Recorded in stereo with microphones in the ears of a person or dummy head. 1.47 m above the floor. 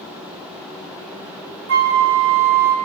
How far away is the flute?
About 1.5 m.